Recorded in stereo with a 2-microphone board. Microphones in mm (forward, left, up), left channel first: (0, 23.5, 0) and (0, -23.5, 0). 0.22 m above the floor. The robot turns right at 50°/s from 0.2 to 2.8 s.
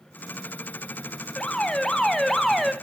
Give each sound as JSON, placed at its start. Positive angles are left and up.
{"t": 1.4, "sound": "an alarm", "side_deg": 20, "distance_m": 0.7}